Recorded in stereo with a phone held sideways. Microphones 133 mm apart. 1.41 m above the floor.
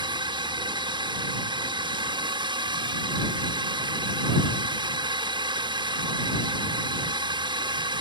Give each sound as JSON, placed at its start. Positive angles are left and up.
{"t": 0.0, "sound": "a drone", "side_deg": -35}